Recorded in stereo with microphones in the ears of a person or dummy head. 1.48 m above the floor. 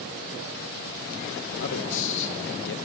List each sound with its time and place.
1.6 s a man speaking: 70° left (ahead or behind), 1.6 m